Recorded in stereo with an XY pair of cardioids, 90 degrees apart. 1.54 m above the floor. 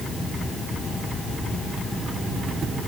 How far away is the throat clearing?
I don't hear throat clearing.